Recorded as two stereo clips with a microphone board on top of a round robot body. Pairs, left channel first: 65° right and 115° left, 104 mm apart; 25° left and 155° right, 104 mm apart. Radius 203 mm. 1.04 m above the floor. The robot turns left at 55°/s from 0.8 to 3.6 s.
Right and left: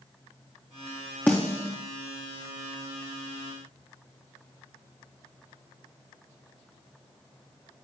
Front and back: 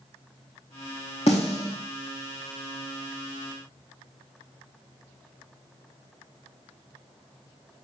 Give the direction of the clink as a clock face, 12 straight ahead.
No clink in this recording.